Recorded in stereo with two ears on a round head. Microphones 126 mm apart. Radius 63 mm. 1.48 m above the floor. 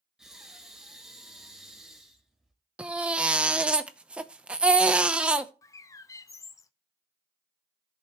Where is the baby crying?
10° right (ahead or behind), 0.7 m.